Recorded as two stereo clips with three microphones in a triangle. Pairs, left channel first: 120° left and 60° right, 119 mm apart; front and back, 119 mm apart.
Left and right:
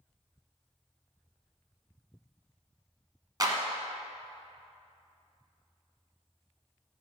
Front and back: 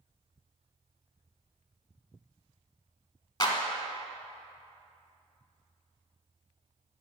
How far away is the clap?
About 1.0 m.